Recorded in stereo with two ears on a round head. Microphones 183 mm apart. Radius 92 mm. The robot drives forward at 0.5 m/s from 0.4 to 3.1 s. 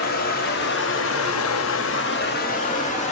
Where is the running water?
50° left (ahead or behind), 0.8 m; by 3.1 s 35° left (ahead or behind), 1.0 m.